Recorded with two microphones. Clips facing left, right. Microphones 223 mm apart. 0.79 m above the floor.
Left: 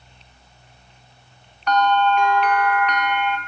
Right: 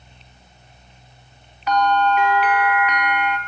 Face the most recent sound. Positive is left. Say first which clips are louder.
# even
turn(degrees=-5)  # may be behind; listen again after turning